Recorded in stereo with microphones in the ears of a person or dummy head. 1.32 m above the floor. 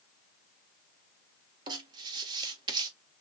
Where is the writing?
20° right (ahead or behind), 1.5 m.